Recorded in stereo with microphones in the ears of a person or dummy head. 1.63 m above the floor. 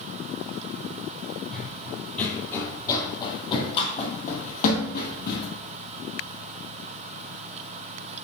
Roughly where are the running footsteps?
Centre.